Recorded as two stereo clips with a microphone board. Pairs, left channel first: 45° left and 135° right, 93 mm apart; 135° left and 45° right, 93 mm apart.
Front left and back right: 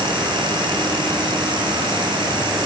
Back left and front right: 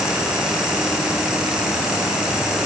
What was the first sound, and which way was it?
Only background noise.